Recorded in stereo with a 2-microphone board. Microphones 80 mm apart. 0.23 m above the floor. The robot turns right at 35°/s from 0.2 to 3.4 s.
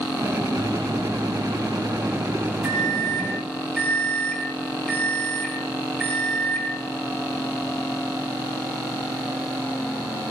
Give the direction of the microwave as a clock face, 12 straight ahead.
3 o'clock.